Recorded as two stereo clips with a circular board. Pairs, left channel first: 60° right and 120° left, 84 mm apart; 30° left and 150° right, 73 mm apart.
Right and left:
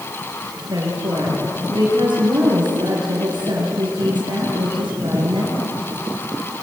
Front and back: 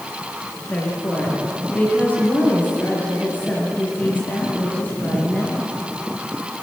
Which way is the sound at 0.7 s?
95° left.